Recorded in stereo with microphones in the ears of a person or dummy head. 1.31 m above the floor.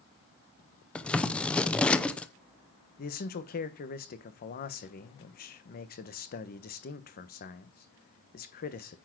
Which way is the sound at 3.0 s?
40° left (ahead or behind).